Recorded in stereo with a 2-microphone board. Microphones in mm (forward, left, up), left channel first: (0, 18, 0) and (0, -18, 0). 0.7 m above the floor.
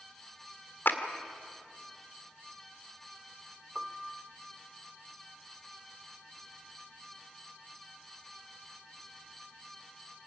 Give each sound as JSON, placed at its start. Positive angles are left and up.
{"t": 0.8, "sound": "a clap", "side_deg": 60, "distance_m": 1.8}
{"t": 3.8, "sound": "a piano", "side_deg": -15, "distance_m": 0.8}